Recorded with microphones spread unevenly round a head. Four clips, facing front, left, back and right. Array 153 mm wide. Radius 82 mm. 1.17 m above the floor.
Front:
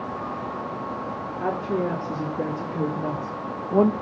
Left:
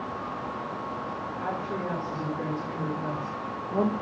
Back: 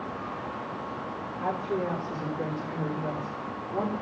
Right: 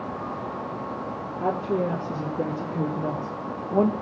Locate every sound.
1.4 s a woman speaking: 45° right, 2.5 m; by 3.9 s 15° right, 1.3 m